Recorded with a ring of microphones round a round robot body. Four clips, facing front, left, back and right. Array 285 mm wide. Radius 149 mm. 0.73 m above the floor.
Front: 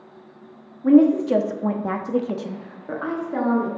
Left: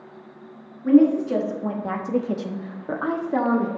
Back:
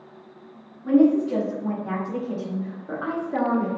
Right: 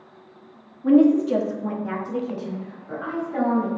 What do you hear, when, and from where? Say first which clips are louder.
0.8 s a woman speaking: even, front 3 dB; 20° right, 1.4 m; by 3.7 s 95° left, 1.7 m